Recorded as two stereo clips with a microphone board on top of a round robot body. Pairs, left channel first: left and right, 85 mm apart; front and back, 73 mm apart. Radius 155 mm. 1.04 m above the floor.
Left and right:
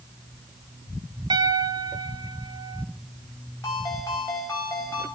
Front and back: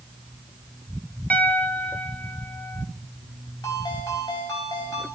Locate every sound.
1.3 s a piano: 65° right, 0.9 m
3.6 s a ringtone: 30° left, 4 m